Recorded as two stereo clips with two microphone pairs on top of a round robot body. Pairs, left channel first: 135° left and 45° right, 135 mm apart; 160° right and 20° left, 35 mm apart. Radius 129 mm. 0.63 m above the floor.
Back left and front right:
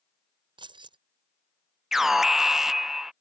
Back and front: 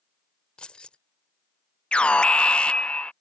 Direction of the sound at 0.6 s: 100° right.